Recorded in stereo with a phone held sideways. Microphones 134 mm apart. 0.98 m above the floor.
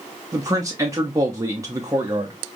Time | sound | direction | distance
0.3 | a man speaking | 25° right (ahead or behind) | 0.7 m